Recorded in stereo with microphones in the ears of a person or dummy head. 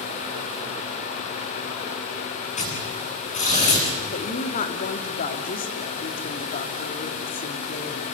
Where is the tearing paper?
35° left (ahead or behind), 8.5 m.